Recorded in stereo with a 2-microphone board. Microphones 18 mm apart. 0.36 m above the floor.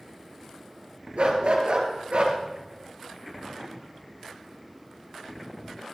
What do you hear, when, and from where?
1.2 s a dog barking: 70° right (ahead or behind), 3 m